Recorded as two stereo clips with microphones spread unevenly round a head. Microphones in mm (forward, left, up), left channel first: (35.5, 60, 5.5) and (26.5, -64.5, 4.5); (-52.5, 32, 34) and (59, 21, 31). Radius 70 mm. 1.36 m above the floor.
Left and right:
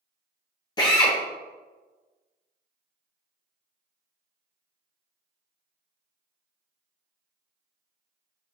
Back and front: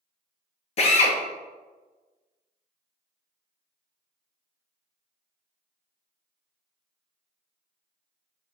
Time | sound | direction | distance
0.8 | a drill | 145° left | 0.7 m